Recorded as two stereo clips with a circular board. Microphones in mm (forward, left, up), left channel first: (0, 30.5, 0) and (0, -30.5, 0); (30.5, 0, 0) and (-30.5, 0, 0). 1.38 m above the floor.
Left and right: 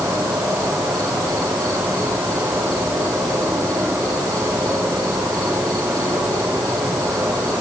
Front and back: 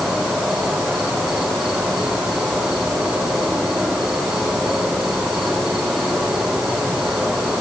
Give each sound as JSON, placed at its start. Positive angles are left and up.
{"t": 0.0, "sound": "an insect", "azimuth_deg": -95, "distance_m": 7.0}